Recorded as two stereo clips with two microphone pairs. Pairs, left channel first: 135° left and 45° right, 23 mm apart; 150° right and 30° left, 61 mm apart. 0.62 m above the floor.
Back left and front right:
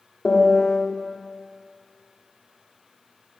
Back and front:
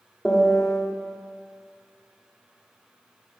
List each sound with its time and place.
0.2 s a piano: 130° left, 1.7 m